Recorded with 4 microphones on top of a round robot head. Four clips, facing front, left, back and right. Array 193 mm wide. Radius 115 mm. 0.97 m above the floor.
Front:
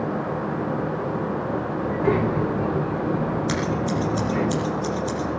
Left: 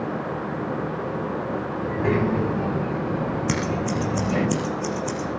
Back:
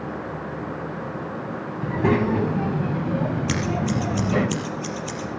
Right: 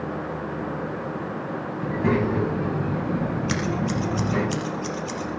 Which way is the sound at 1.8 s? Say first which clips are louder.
Even, back 2 dB; straight behind.